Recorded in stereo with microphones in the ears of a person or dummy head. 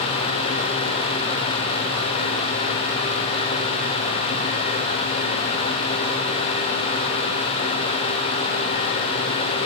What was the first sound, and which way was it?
Only background noise.